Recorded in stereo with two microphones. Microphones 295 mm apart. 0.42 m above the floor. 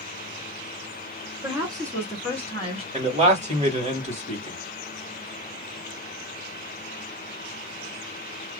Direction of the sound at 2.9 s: 25° right (ahead or behind).